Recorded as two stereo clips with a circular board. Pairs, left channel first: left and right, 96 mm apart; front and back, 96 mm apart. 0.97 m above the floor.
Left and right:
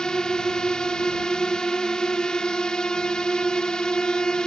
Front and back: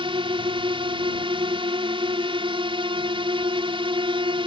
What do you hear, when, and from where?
0.0 s a drone: 170° left